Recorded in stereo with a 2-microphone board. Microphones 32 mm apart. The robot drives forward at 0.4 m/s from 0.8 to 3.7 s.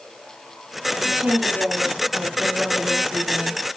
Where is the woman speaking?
60° right (ahead or behind), 5.5 m; by 3.6 s 50° right (ahead or behind), 6 m.